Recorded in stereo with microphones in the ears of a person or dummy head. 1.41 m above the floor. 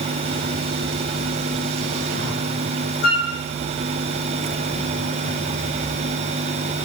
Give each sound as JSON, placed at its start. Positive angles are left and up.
{"t": 3.0, "sound": "a flute", "side_deg": 65, "distance_m": 7.0}